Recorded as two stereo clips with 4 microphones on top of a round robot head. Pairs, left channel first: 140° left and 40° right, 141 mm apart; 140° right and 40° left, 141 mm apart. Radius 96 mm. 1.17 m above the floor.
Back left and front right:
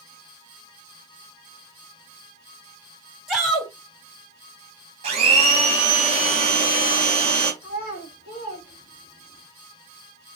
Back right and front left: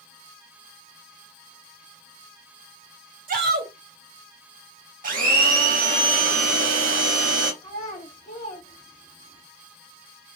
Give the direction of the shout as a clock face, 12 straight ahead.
10 o'clock.